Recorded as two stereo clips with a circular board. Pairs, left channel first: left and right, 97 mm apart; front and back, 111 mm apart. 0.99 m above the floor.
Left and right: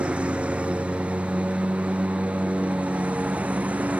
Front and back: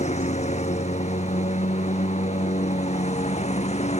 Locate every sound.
0.0 s a lawn mower: 10° right; by 4.0 s 15° right